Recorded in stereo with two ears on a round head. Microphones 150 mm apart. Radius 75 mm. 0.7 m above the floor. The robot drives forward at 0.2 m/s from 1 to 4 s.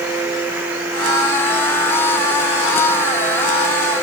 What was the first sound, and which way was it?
Only background noise.